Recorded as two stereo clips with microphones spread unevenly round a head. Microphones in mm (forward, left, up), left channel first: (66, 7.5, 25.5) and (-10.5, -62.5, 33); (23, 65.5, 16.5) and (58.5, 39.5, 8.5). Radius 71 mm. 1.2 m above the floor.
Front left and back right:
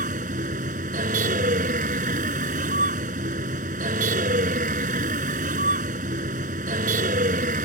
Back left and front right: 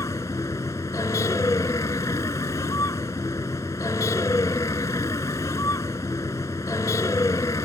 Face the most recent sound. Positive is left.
turn(degrees=-170)